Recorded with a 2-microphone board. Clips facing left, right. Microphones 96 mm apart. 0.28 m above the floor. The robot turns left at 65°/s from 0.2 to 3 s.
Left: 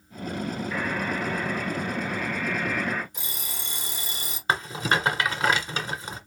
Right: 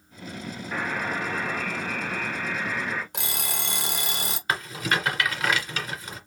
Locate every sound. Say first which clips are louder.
0.7 s a buzzer: right 2 dB; 35° right, 2 m; by 3.0 s 175° left, 2 m
3.1 s an alarm clock: right 6 dB; 75° right (ahead or behind), 1.2 m
4.5 s a rattle: left 3 dB; 30° left (ahead or behind), 1.7 m